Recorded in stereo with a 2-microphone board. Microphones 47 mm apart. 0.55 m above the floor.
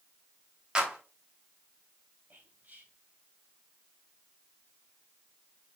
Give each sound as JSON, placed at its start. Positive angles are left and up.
{"t": 0.8, "sound": "a clap", "side_deg": -20, "distance_m": 3.0}
{"t": 2.3, "sound": "whispering", "side_deg": -45, "distance_m": 3.0}